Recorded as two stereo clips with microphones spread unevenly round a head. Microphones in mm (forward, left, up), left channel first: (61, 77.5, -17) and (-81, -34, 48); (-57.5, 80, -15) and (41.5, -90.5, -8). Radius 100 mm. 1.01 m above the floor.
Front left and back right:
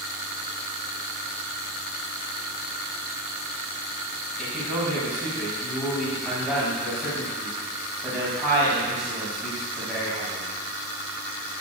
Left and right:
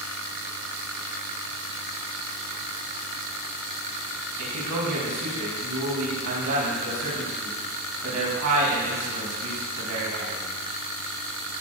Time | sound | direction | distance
4.4 | a man speaking | 55° right | 6.5 m